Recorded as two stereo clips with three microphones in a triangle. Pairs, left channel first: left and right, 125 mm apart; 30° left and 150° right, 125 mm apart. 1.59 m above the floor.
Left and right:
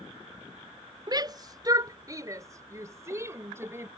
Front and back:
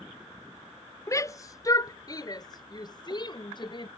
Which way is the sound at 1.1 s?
35° right.